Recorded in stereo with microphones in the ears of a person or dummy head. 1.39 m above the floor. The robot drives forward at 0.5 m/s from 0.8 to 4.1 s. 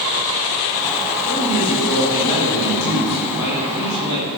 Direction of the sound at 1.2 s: 85° left.